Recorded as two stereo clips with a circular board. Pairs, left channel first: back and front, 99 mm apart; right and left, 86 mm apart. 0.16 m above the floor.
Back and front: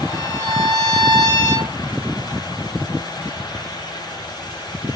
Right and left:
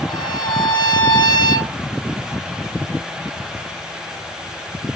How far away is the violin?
About 1.3 m.